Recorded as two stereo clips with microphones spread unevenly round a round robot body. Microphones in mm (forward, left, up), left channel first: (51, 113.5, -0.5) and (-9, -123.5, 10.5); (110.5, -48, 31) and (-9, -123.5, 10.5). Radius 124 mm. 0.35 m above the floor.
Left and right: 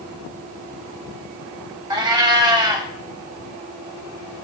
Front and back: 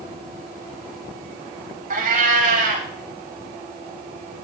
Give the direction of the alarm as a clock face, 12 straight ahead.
I don't hear an alarm.